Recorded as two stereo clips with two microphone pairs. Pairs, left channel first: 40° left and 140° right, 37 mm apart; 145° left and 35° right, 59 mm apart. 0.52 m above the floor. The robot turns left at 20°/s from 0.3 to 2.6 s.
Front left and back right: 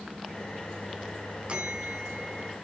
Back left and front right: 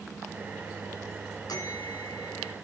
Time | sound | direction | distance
1.5 | a bell | 160° left | 2 m